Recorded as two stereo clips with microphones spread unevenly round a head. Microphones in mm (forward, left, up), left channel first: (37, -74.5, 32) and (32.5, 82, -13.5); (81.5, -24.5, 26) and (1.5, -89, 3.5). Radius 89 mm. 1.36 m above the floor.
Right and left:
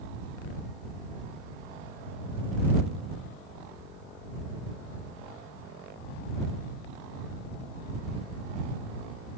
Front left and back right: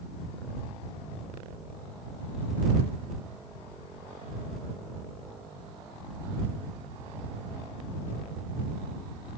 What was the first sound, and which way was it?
Only background noise.